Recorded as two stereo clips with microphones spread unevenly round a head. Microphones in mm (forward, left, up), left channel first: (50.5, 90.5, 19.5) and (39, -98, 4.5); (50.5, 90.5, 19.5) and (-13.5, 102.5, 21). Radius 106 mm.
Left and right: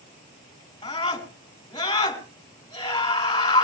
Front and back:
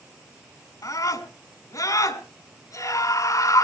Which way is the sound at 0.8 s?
20° left.